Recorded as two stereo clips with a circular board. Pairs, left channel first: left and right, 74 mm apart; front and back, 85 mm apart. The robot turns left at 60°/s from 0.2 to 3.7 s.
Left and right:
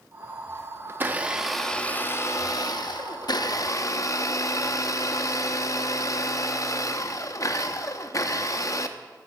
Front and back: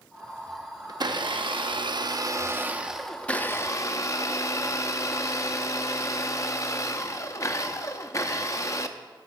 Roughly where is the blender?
Behind right.